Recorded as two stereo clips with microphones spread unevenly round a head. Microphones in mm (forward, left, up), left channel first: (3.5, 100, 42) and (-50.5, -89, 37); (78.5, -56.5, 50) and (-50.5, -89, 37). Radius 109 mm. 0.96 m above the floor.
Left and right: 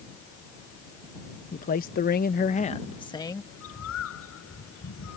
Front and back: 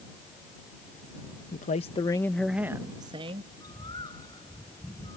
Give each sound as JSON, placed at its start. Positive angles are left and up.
{"t": 1.5, "sound": "a man speaking", "azimuth_deg": 30}
{"t": 3.5, "sound": "a bird", "azimuth_deg": 85}